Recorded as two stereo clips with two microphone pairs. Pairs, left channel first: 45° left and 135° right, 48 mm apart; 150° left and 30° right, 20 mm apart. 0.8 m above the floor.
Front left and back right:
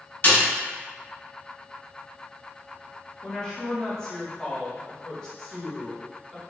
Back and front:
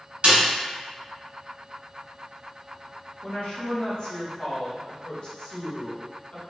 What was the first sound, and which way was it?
A snare drum, 5° right.